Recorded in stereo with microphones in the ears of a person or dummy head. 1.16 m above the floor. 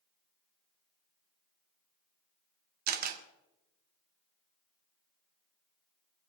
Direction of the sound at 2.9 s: 55° right (ahead or behind).